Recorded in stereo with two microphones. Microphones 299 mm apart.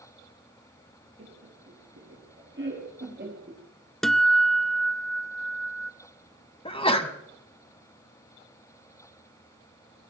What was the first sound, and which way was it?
Laughter, 50° right (ahead or behind).